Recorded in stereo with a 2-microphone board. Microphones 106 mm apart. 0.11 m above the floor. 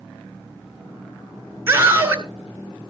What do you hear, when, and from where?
1.7 s a scream: 20° right (ahead or behind), 1.9 m